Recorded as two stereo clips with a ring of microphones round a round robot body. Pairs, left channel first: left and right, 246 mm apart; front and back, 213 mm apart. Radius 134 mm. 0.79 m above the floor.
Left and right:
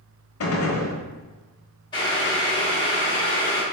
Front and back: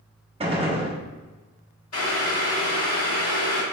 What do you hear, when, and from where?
0.4 s a gunshot: 115° left, 1.1 m
1.9 s boiling: 15° left, 1.6 m